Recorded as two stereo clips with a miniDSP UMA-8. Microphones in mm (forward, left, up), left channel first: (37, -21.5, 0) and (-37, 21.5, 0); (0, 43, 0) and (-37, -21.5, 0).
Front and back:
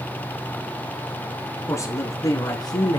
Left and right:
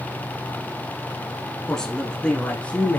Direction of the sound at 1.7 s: 20° right.